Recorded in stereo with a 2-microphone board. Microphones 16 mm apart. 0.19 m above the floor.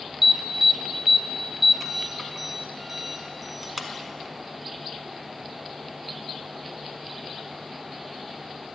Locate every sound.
0.2 s an alarm: 15° right (ahead or behind), 1.0 m